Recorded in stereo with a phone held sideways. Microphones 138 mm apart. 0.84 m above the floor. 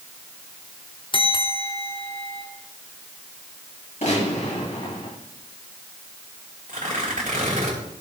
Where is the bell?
35° left (ahead or behind), 1.2 m.